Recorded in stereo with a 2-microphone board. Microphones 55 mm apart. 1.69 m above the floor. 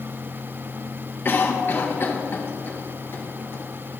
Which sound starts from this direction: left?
A cough, at 1.2 s.